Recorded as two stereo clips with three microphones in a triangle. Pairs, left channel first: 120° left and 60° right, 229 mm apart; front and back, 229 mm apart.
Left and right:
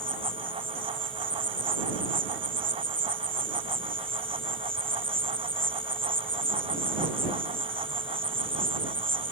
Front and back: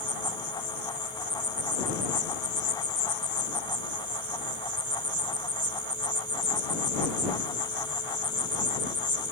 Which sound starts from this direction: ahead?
An insect, at 0.0 s.